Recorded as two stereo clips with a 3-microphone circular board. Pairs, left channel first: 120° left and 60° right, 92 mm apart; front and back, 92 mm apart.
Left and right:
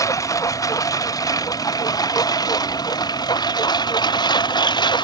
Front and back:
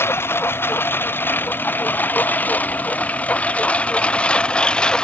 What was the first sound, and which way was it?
A lawn mower, 65° left.